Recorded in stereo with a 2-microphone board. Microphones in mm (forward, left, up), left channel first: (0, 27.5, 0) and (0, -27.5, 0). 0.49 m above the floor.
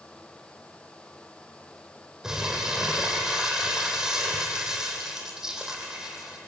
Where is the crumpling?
10° right (ahead or behind), 4.5 m.